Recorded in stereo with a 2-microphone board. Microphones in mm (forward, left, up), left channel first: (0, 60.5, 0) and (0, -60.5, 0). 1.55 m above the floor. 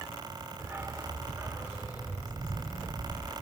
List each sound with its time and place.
0.6 s a dog barking: 20° right (ahead or behind), 1.3 m; by 3.3 s 10° right (ahead or behind), 3.5 m